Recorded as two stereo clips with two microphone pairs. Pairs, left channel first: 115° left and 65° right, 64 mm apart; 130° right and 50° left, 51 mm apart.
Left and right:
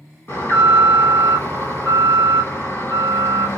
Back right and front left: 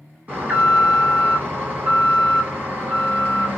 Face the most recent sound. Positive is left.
turn(degrees=90)